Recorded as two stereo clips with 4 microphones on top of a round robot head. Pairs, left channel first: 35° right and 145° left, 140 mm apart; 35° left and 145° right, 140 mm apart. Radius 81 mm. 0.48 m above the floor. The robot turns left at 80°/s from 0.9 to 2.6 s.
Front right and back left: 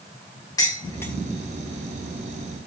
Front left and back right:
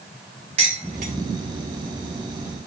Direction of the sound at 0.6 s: 100° right.